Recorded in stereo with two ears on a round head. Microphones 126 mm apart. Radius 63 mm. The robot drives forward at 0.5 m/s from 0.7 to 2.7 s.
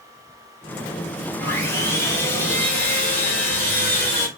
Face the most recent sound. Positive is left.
turn(degrees=15)  # may be behind; listen again after turning